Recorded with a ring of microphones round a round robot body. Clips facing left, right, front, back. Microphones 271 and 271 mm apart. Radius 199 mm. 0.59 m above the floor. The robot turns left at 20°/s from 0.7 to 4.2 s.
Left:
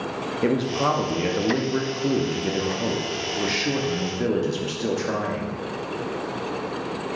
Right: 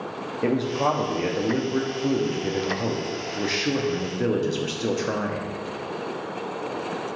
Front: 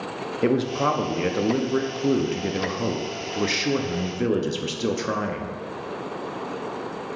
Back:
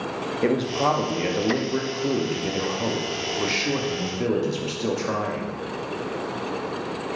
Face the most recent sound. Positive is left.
turn(degrees=-15)